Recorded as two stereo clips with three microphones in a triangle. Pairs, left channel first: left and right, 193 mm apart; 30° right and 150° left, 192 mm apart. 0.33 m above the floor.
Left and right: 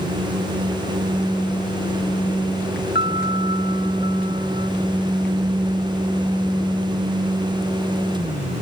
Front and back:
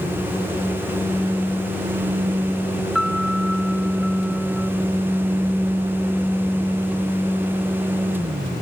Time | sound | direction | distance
3.0 | a piano | 60° left | ?